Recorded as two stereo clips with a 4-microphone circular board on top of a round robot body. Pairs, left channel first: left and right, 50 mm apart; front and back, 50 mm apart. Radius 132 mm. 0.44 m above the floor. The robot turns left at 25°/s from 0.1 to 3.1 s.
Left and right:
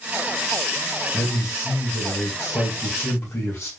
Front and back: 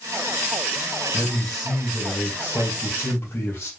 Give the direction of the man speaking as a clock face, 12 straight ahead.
9 o'clock.